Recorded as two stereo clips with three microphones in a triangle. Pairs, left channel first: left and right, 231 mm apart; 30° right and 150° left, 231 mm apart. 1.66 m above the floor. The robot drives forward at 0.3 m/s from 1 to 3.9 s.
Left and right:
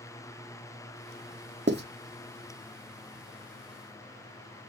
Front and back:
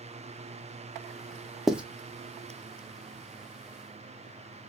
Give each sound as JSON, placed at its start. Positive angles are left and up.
{"t": 1.7, "sound": "writing", "azimuth_deg": -120, "distance_m": 0.5}